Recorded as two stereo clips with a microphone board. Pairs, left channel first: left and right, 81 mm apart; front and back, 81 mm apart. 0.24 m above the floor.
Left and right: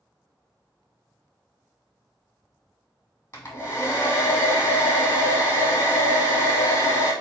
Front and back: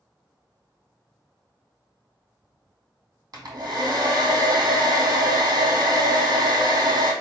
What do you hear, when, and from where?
3.3 s a hair dryer: 145° left, 1.4 m